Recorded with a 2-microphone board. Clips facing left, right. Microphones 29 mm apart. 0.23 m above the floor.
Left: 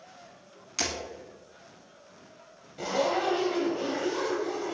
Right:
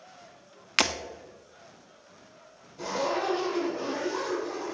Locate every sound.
0.8 s breaking glass: 65° right (ahead or behind), 0.6 m
2.8 s a zipper: 60° left (ahead or behind), 2.5 m